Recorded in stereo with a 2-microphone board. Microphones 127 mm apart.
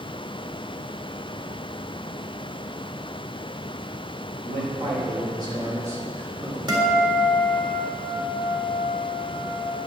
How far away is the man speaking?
About 2 m.